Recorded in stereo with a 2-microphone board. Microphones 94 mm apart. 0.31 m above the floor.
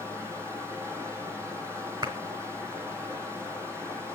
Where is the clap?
50° right (ahead or behind), 2.5 m.